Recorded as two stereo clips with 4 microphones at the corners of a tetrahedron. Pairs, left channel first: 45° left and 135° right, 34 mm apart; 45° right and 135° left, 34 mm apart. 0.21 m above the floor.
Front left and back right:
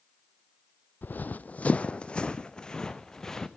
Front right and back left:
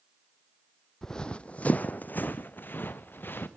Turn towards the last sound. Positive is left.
turn(degrees=-30)